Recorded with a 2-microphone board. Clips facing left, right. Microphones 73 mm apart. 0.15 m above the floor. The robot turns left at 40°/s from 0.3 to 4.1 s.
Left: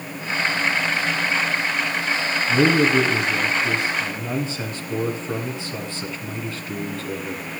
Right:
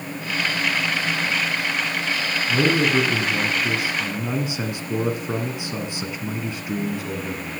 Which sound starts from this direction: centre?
A man speaking, at 2.5 s.